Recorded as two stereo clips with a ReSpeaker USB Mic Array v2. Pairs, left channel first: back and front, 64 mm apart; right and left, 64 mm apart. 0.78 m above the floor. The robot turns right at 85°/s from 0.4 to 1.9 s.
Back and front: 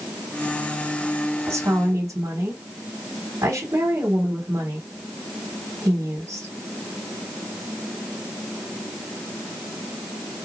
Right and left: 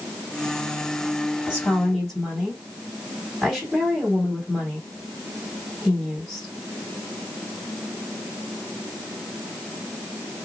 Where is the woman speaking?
40° right, 2.5 m; by 6.5 s straight ahead, 2.5 m.